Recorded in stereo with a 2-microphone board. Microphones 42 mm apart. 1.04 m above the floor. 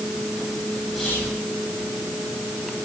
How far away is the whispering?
About 7 m.